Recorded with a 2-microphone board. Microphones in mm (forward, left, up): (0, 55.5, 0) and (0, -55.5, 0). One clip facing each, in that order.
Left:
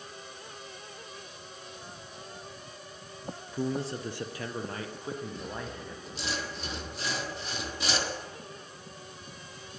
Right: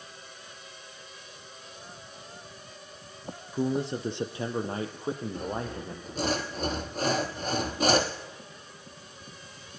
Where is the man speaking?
15° right (ahead or behind), 1.5 m; by 6.3 s 30° right (ahead or behind), 5 m.